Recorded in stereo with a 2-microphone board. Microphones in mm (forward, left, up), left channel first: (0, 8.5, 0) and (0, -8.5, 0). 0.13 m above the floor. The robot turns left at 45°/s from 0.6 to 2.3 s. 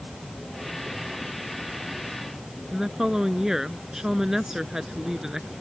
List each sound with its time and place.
2.7 s a woman speaking: 30° right (ahead or behind)